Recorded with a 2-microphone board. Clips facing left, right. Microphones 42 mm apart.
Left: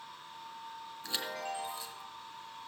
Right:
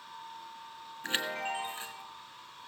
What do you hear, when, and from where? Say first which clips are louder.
1.0 s a chime: right 5 dB; 45° right (ahead or behind), 2 m